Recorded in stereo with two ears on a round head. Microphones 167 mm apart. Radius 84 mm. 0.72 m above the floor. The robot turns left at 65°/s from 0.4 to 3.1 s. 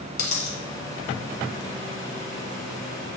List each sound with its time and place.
0.2 s a dropped coin: 45° left (ahead or behind), 1.6 m; by 0.6 s 35° left (ahead or behind), 1.6 m